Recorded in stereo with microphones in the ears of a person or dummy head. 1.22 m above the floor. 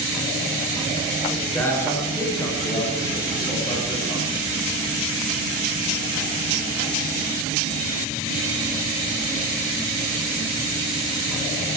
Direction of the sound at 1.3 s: 10° left (ahead or behind).